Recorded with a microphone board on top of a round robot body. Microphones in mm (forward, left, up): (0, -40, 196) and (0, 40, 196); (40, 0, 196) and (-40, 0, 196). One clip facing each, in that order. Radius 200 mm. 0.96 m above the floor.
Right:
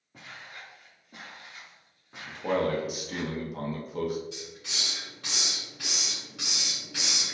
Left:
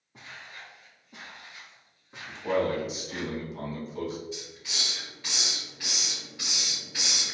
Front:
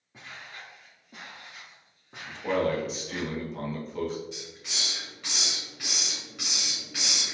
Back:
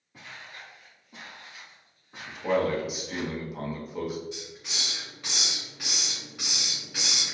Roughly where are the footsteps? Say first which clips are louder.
Even, front 1 dB; right.